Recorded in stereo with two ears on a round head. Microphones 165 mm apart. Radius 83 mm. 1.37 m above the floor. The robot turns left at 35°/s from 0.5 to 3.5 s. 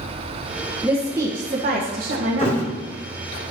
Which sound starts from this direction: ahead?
A woman speaking, at 0.8 s.